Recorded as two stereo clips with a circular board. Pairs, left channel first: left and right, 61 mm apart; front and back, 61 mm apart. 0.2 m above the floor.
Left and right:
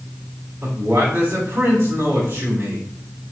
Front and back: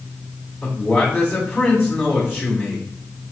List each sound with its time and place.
0.6 s a man speaking: 75° right, 1.9 m